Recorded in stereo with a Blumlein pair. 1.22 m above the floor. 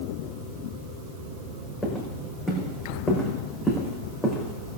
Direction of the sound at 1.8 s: 10° left.